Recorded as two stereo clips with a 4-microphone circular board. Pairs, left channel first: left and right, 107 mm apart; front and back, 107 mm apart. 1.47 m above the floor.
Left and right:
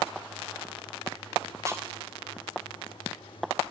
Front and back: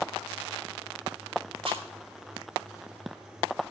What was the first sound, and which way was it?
Chewing, 150° right.